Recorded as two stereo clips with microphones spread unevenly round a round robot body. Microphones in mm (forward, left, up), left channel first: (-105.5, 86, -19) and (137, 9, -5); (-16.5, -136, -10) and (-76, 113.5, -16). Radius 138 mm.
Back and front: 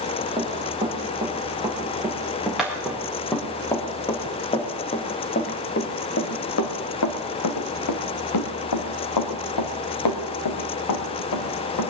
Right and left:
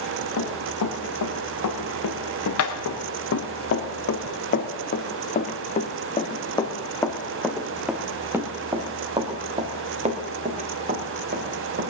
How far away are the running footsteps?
About 4 m.